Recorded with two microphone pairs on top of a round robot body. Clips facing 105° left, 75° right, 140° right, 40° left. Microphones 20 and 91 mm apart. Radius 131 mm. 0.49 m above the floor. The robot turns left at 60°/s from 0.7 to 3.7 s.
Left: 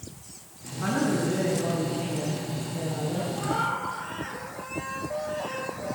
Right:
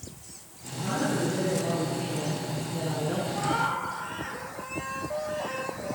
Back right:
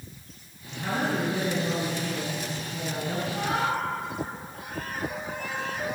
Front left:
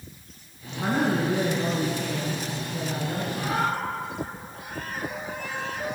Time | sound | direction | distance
0.8 | a man speaking | 75° left | 6 m
3.3 | a cat meowing | 95° right | 7.5 m